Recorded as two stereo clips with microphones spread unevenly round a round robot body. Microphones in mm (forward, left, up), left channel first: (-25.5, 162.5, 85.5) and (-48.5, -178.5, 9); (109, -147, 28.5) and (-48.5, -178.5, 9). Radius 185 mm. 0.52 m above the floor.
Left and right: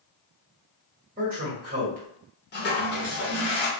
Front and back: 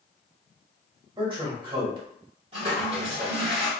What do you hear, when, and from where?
1.2 s a man speaking: 130° right, 1.5 m
2.5 s a toilet flushing: 150° left, 0.9 m